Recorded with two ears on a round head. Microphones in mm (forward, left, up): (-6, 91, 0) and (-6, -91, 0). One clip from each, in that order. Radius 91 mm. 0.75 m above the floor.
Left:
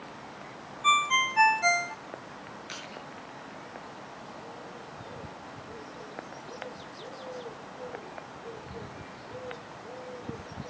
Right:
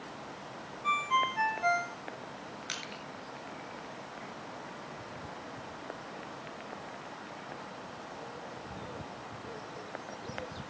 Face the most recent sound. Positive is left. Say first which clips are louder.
# right 2 dB
turn(degrees=-40)  # may be behind; listen again after turning